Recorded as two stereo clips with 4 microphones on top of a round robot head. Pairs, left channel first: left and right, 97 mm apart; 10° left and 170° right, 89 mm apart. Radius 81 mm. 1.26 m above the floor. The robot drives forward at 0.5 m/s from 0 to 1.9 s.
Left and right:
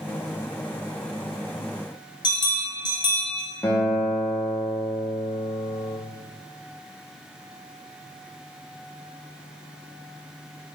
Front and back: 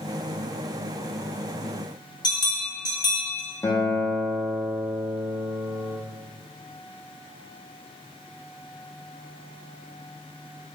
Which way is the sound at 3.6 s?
40° left.